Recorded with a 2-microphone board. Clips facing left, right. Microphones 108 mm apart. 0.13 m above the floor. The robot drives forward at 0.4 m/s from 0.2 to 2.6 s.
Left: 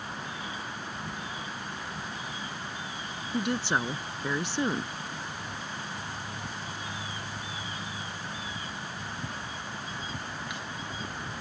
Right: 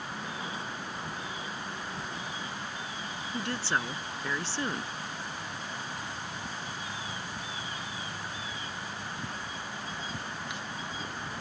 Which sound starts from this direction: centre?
A woman speaking, at 3.3 s.